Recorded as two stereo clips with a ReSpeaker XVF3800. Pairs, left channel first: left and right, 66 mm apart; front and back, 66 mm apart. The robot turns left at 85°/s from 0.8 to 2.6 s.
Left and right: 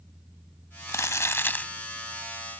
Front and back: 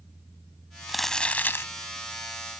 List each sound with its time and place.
0.9 s crumpling: 95° left; by 1.7 s 25° left